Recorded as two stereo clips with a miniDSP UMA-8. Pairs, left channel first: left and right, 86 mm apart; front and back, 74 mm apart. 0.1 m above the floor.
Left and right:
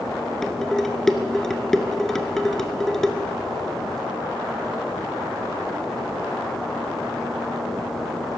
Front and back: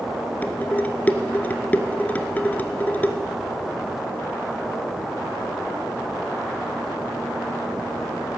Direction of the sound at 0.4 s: 10° left.